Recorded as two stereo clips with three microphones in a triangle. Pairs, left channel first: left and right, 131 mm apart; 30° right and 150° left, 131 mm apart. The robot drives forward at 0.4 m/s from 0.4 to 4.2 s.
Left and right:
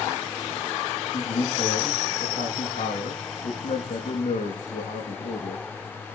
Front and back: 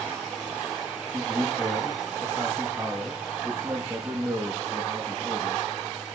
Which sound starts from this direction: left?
A man speaking, at 1.1 s.